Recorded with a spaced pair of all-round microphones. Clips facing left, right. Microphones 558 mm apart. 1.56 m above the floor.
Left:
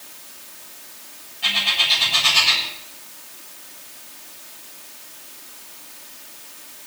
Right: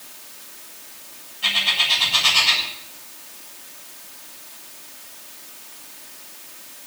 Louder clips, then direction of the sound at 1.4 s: Left 1 dB; 15° left (ahead or behind).